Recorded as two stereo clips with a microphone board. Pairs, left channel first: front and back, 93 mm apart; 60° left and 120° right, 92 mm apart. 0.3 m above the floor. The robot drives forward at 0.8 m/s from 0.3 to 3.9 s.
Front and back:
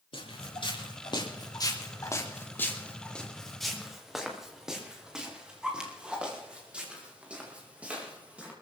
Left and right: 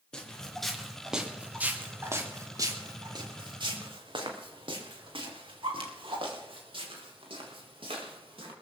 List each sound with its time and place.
0.1 s footsteps: 20° right, 4.5 m; by 8.5 s 105° right, 7.5 m